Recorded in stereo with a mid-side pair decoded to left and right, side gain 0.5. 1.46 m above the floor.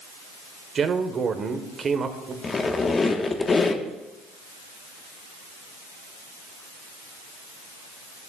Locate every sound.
0.8 s a man speaking: 45° right, 1.1 m
2.4 s a squeak: 35° left, 1.1 m